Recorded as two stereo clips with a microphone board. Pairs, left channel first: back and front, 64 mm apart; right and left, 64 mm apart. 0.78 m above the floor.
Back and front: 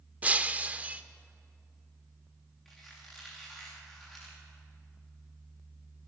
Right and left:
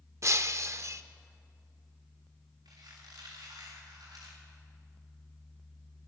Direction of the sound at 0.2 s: 60° left.